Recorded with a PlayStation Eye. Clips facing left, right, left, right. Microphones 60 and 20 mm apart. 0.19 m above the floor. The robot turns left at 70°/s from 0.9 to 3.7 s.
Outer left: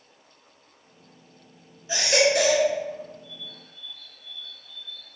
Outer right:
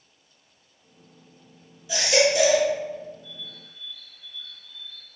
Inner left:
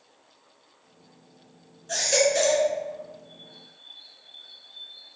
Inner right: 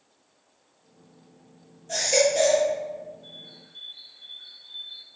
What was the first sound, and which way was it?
A baby crying, 140° left.